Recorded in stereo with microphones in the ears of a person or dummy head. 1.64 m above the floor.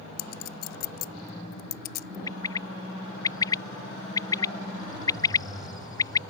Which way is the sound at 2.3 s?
15° left (ahead or behind).